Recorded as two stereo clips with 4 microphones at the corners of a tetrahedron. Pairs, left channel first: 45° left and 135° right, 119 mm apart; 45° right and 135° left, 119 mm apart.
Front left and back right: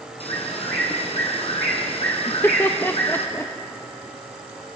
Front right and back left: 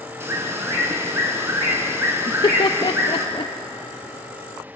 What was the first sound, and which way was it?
A bird, 70° left.